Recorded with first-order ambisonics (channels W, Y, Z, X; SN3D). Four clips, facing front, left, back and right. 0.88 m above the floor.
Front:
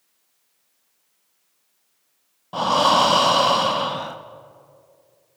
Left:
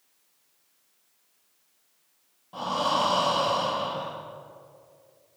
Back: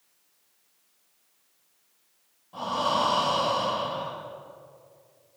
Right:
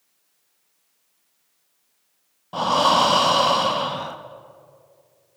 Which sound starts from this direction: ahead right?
Breathing, at 2.5 s.